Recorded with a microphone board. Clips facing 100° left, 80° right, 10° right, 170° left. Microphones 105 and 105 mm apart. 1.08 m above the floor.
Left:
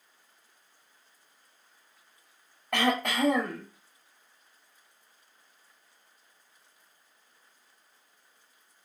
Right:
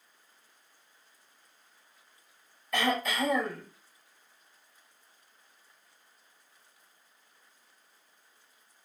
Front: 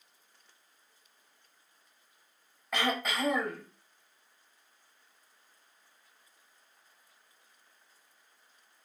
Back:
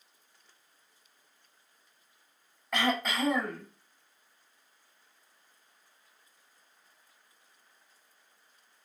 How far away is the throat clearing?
About 1.0 m.